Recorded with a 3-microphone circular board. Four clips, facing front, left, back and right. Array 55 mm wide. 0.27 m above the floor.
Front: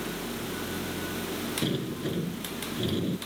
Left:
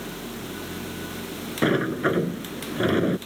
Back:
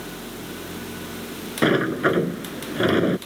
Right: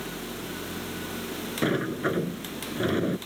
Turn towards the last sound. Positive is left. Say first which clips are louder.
# left 5 dB, back 15 dB
turn(degrees=160)